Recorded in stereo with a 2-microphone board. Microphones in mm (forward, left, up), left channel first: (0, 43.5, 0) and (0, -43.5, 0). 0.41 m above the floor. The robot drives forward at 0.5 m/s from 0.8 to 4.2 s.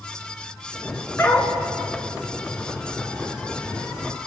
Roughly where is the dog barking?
Left.